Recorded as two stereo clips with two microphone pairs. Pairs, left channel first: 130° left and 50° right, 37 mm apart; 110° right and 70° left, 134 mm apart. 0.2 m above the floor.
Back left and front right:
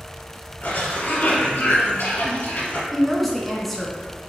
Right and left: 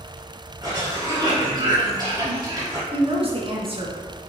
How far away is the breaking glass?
No breaking glass in this recording.